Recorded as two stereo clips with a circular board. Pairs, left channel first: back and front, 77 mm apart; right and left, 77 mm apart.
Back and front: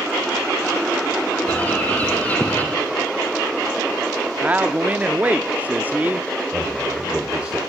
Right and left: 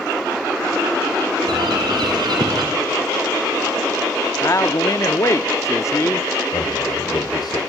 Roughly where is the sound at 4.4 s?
Ahead right.